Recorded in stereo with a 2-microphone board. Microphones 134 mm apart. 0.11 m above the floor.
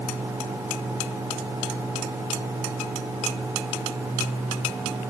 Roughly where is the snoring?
I don't hear snoring.